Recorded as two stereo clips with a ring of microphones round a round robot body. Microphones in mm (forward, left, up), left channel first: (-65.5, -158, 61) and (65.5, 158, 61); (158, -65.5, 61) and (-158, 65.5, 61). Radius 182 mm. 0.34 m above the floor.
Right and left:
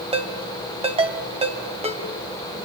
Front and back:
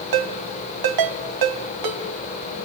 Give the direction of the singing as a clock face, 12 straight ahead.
I don't hear singing.